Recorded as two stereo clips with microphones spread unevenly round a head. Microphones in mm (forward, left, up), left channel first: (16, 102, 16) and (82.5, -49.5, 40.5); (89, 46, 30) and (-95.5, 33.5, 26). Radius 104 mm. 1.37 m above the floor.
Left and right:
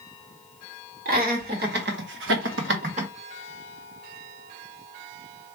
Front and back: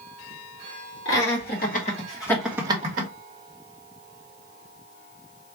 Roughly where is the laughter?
Ahead right.